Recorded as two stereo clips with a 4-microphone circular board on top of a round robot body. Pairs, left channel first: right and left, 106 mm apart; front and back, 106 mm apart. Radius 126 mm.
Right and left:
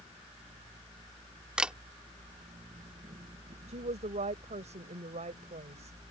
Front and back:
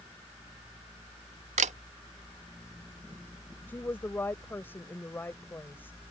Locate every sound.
1.6 s a camera shutter: 170° left
3.7 s a woman speaking: 70° left